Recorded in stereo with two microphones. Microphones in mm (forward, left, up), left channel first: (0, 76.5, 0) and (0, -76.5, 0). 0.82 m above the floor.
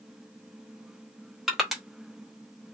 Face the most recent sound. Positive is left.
turn(degrees=0)  # may be behind; listen again after turning